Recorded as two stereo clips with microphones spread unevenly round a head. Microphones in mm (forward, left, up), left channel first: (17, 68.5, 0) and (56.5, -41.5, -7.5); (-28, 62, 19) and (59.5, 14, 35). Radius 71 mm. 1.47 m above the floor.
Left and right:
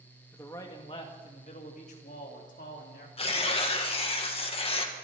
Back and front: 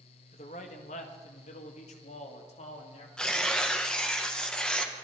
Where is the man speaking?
175° right, 1.7 m; by 3.1 s 135° left, 3 m.